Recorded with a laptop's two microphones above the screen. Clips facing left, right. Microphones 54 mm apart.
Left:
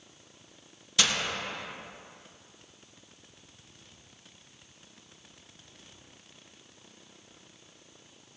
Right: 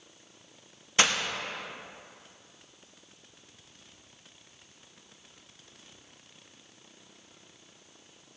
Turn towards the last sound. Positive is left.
turn(degrees=-35)  # may be behind; listen again after turning